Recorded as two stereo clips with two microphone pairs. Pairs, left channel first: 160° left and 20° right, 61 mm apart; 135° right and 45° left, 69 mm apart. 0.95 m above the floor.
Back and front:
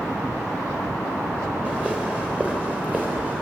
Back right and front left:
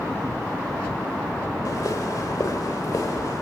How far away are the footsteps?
About 9.5 m.